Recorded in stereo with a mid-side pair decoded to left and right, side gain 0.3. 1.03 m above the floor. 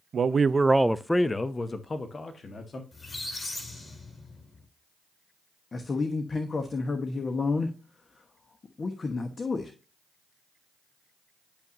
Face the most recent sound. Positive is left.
turn(degrees=50)